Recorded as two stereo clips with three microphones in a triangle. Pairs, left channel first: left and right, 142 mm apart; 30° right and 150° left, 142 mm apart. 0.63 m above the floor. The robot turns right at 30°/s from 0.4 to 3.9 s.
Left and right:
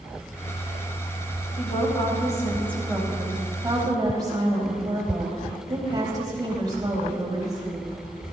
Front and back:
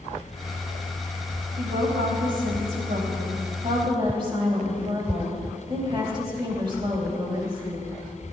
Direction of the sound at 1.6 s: 135° left.